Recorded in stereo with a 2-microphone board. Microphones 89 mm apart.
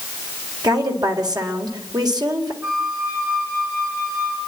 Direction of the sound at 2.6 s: 25° right (ahead or behind).